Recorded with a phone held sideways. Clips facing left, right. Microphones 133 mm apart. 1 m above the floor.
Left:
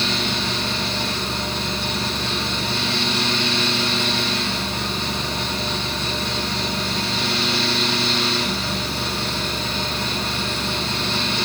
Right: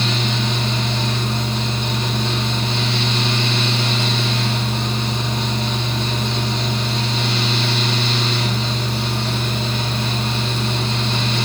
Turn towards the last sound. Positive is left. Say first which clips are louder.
# right 2 dB
turn(degrees=-20)  # may be behind; listen again after turning